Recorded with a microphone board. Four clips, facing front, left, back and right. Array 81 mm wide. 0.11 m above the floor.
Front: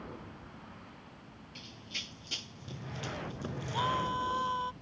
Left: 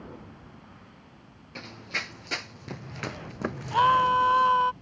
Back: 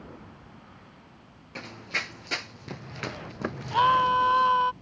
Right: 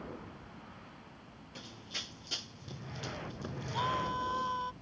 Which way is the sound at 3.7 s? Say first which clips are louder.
Left 14 dB, back 12 dB; 125° left.